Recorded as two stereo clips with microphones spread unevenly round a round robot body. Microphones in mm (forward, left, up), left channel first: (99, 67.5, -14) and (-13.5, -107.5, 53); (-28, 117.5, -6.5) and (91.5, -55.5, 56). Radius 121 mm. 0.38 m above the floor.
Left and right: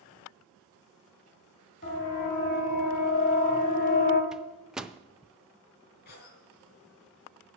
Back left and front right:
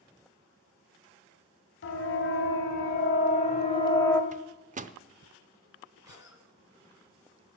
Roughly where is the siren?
Left.